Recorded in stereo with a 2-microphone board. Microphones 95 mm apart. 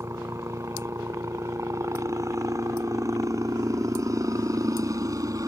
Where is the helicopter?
30° right (ahead or behind); by 5.5 s 35° right (ahead or behind).